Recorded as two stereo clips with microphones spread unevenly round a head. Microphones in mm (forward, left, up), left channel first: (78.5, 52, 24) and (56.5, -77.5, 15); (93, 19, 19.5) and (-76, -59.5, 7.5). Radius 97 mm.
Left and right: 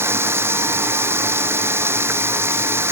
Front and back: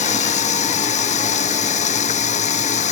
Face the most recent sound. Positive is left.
turn(degrees=-30)